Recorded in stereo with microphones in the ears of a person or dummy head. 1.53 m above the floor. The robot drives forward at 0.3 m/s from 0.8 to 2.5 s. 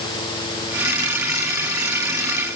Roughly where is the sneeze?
I don't hear a sneeze.